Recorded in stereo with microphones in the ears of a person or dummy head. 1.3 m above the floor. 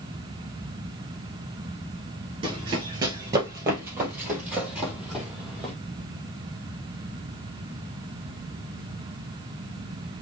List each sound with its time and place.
2.4 s running footsteps: 30° right (ahead or behind), 1.7 m; by 5.7 s centre (ahead or behind), 3 m